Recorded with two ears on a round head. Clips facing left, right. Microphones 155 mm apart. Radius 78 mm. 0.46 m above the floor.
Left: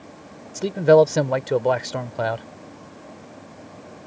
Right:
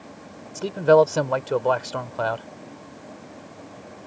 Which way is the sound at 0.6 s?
15° left (ahead or behind).